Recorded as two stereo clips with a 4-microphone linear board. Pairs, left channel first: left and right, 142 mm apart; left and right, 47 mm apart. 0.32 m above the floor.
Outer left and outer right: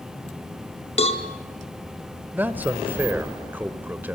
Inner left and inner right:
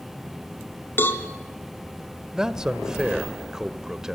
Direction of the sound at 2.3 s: 15° right (ahead or behind).